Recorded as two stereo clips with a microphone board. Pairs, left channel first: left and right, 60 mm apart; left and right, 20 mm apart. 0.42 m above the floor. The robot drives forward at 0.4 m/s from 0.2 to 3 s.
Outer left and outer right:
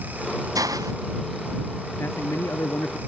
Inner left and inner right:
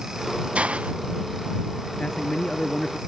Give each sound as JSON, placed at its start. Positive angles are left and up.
{"t": 0.6, "sound": "a hiss", "side_deg": -90}
{"t": 2.0, "sound": "a man speaking", "side_deg": 45}